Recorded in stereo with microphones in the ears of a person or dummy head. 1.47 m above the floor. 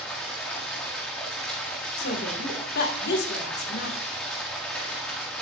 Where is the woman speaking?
55° left (ahead or behind), 1.7 m.